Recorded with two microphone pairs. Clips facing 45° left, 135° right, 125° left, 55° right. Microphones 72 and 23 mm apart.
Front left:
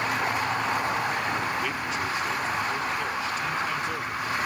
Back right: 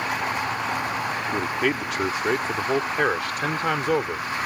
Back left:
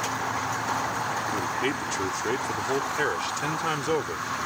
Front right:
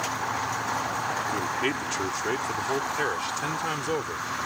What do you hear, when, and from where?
1.3 s a man speaking: 130° right; by 4.3 s 155° right